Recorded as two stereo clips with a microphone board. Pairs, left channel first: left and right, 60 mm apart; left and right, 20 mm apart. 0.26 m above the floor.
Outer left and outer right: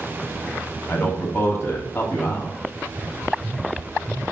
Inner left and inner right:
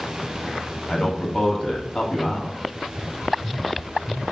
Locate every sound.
0.9 s a man speaking: 45° left (ahead or behind), 1.8 m